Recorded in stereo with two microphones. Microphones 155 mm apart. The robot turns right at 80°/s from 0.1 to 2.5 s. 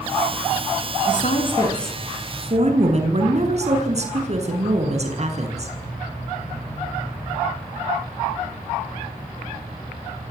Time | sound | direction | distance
1.1 | a woman speaking | 115° left | 7 m